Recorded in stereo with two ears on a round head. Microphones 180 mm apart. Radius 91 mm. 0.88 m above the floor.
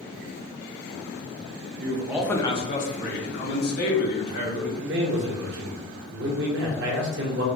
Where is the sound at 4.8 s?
60° right (ahead or behind), 0.8 m.